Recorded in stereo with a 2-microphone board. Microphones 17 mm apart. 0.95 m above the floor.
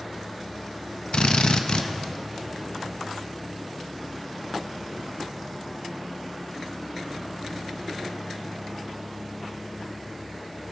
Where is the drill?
60° left (ahead or behind), 0.6 m.